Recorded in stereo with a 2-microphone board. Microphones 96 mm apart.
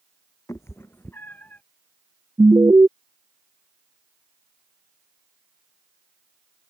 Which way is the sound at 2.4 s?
30° right (ahead or behind).